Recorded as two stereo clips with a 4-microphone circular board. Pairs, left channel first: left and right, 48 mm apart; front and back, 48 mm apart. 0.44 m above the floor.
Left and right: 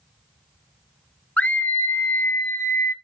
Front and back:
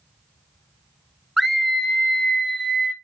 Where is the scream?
90° left, 0.8 m; by 2.9 s 80° left, 1.6 m.